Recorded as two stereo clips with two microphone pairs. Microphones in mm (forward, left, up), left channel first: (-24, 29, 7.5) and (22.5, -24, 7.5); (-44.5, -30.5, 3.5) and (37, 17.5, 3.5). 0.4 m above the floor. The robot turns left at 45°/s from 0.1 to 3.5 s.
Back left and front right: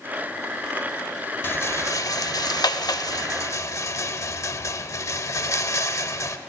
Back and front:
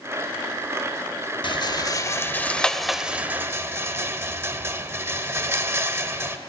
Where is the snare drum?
I don't hear a snare drum.